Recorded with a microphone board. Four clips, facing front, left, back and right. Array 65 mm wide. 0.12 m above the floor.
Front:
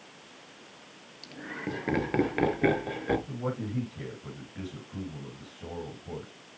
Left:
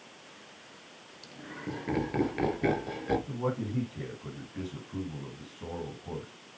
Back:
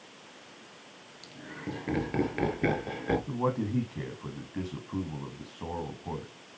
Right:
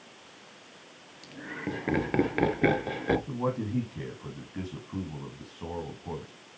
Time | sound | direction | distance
1.2 | laughter | 45° right | 2.5 m
3.3 | a man speaking | 160° right | 5 m